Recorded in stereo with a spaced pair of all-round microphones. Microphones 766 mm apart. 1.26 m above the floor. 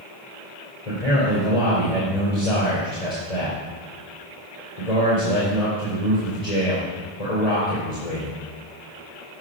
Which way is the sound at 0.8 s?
50° left (ahead or behind).